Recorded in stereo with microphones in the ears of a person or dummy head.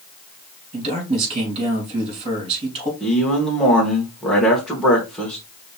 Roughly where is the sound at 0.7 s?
Right.